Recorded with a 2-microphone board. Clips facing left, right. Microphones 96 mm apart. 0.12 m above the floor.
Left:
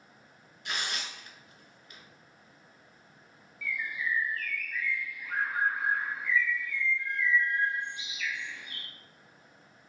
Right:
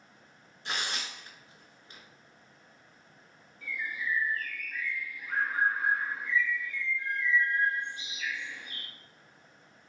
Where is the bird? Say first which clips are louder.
Left 1 dB; 35° right (ahead or behind), 0.5 m.